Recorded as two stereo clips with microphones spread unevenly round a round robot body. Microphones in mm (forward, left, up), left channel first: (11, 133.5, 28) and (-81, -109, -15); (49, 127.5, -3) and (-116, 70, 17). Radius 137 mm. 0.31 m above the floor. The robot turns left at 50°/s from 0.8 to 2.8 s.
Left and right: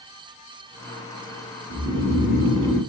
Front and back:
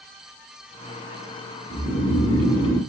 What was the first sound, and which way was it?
Snoring, 55° left.